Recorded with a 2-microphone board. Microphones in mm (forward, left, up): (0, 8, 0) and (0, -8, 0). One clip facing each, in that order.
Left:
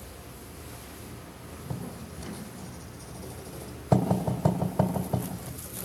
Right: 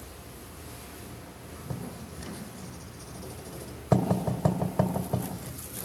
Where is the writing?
25° right (ahead or behind), 2 m.